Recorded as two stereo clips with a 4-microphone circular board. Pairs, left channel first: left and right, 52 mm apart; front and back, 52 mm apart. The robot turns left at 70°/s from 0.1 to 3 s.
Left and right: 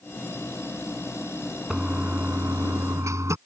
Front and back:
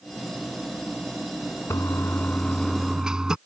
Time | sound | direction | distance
1.7 | a toilet flushing | 15° right | ?